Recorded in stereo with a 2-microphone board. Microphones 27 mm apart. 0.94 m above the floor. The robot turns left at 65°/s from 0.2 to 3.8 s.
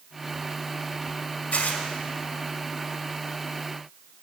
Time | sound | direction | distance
1.5 | tearing paper | 60° left (ahead or behind) | 1.4 m